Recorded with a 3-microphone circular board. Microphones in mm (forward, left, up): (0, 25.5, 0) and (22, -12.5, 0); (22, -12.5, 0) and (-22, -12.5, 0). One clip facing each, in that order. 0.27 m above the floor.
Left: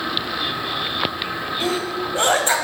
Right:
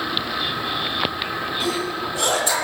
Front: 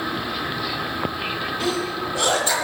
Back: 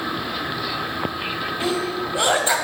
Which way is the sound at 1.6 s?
130° left.